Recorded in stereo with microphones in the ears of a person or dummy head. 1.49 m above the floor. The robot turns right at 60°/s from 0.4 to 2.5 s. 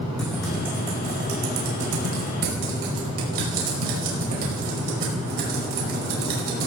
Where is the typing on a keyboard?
5° left (ahead or behind), 5 m; by 6.7 s 55° right (ahead or behind), 5 m.